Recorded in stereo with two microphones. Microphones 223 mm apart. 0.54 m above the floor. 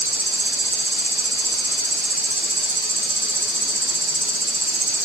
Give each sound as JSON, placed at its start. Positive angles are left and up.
{"t": 0.0, "sound": "an insect", "side_deg": 35, "distance_m": 2.5}